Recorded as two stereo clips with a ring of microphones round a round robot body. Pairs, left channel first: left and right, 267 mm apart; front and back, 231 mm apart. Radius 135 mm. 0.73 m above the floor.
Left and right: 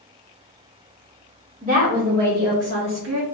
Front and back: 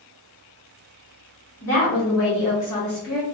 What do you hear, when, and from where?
1.6 s a woman speaking: 25° right, 1.7 m; by 3.2 s 55° right, 1.2 m